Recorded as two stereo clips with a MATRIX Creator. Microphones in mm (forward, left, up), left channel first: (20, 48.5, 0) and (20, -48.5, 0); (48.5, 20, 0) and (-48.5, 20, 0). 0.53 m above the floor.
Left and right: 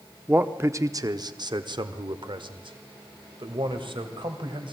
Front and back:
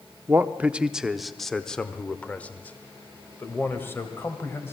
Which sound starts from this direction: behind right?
A man speaking, at 0.3 s.